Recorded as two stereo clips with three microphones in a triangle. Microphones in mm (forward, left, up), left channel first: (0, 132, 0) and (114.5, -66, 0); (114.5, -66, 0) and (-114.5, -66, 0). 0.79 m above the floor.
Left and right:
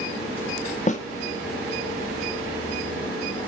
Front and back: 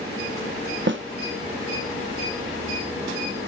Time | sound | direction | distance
0.9 | a snare drum | 170° left | 1.0 m